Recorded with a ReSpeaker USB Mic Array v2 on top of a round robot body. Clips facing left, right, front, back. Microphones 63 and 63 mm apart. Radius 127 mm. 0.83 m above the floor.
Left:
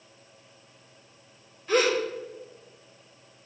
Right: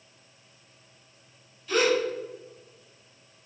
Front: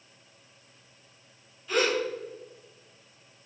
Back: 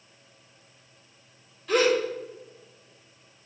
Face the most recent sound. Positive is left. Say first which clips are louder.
# even, back 4 dB
turn(degrees=145)